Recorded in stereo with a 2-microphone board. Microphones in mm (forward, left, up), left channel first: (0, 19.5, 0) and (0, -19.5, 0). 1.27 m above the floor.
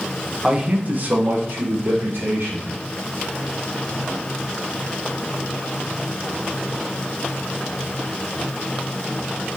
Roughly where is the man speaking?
Centre.